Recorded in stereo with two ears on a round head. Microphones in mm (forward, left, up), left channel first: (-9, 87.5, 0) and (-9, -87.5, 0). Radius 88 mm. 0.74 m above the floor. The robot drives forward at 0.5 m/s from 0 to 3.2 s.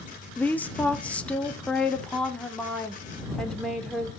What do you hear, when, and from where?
0.4 s a woman speaking: 10° left (ahead or behind), 0.9 m; by 4.1 s 5° left (ahead or behind), 2 m